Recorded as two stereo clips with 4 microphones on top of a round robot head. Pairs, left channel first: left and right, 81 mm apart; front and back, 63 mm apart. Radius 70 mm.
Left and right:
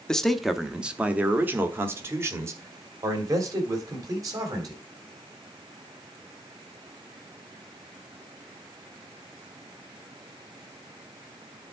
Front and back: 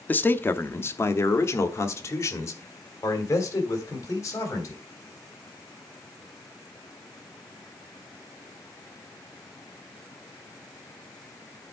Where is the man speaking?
15° left, 0.9 m; by 4.8 s 45° right, 3 m.